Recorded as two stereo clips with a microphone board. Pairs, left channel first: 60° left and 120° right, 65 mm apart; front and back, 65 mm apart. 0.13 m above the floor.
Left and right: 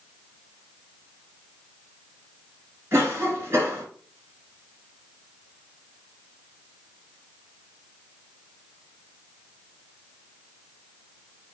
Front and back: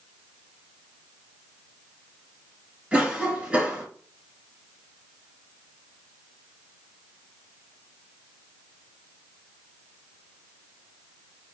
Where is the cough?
115° right, 1.6 m.